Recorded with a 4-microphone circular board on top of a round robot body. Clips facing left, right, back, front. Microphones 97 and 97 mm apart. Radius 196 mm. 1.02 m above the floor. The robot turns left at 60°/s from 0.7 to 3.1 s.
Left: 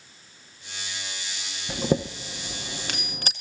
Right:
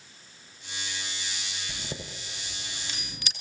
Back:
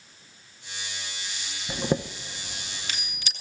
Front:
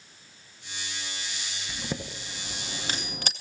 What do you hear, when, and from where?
1.7 s a chime: 130° left, 0.5 m; by 3.3 s 45° left, 0.5 m